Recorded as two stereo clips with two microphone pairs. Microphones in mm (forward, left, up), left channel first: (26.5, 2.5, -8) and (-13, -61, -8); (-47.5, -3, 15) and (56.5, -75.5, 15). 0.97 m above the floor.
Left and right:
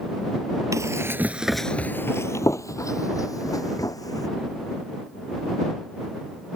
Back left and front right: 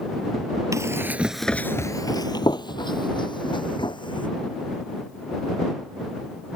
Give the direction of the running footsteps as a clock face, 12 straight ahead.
3 o'clock.